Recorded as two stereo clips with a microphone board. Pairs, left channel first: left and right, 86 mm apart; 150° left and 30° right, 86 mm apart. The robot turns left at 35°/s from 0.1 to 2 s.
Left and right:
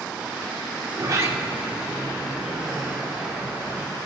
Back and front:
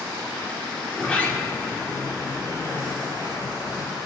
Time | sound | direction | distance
0.9 | a sliding door | 130° right | 0.9 m